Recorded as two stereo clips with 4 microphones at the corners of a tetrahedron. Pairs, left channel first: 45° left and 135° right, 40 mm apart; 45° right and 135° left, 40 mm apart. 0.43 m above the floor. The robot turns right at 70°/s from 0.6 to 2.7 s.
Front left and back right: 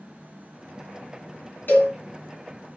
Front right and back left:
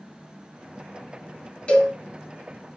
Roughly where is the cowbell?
Ahead.